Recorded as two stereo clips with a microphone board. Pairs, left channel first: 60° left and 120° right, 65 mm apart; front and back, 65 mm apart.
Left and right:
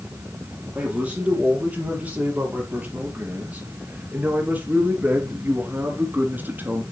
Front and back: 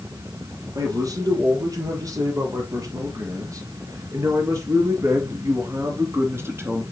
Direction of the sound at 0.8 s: 170° left.